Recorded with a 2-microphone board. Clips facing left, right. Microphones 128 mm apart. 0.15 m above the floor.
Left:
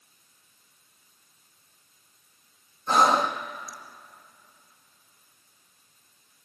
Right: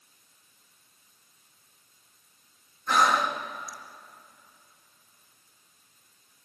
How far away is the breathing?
About 1.4 m.